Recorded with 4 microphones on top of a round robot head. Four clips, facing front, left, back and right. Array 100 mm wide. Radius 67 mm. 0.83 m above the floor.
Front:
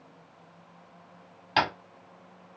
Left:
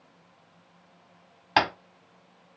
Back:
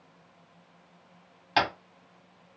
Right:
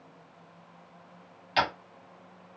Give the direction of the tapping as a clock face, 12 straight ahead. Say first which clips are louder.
Left 4 dB, even; 9 o'clock.